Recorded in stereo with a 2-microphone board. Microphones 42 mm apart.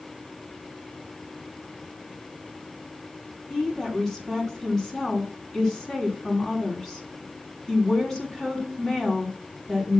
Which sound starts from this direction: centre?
A woman speaking, at 3.5 s.